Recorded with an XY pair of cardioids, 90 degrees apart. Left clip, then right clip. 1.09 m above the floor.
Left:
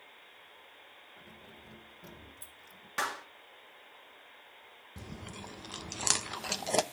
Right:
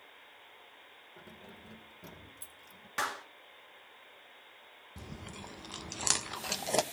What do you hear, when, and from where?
1.2 s keys jangling: 50° right, 2.5 m; by 2.9 s 10° right, 3.5 m
3.0 s a clap: straight ahead, 1.8 m
5.0 s chewing: 5° left, 0.8 m